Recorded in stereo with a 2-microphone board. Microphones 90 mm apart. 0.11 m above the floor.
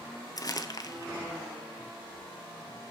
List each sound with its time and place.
0.4 s crumpling: 40° left (ahead or behind), 1.0 m